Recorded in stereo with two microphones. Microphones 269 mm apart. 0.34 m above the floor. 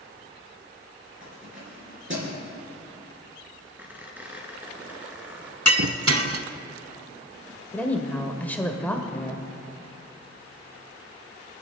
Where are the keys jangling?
50° right (ahead or behind), 4 m.